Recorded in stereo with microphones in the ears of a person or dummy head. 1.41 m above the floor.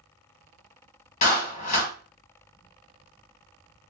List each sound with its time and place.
1.2 s a clap: 40° left (ahead or behind), 1.4 m